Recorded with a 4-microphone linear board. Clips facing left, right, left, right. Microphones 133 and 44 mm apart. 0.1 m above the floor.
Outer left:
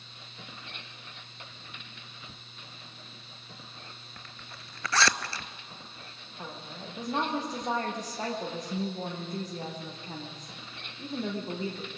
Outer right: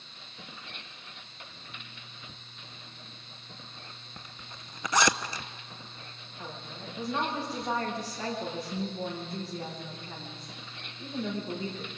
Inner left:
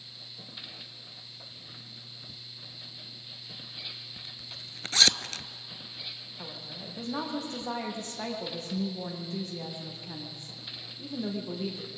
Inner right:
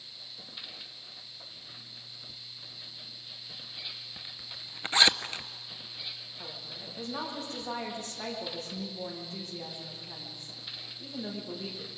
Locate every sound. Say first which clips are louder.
4.2 s a zipper: outer right 2 dB, even; 20° right (ahead or behind), 0.5 m
6.4 s a woman speaking: outer left 1 dB, inner left 3 dB; 40° left (ahead or behind), 7 m